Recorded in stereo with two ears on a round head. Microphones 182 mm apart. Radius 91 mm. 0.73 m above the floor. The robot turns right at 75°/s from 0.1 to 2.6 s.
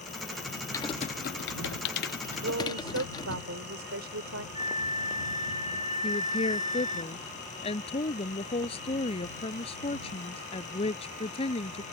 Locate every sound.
0.7 s typing on a keyboard: 15° left (ahead or behind); by 3.4 s 20° left (ahead or behind)
2.4 s a woman speaking: 65° right (ahead or behind); by 4.5 s 75° right (ahead or behind)
4.5 s a flute: 25° right (ahead or behind)
6.0 s a woman speaking: 30° left (ahead or behind)